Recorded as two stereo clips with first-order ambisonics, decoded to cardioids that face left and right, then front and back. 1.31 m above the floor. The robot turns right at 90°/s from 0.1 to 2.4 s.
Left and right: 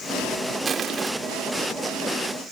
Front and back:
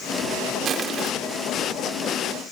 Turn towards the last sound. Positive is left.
turn(degrees=10)